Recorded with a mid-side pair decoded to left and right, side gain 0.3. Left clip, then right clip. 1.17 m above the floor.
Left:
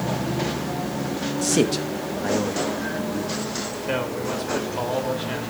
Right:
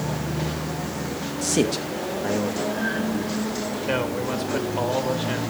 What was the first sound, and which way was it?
A man speaking, 20° left.